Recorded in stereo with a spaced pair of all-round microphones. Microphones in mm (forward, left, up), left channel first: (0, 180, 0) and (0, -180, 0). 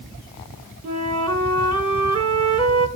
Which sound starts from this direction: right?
A flute, at 0.8 s.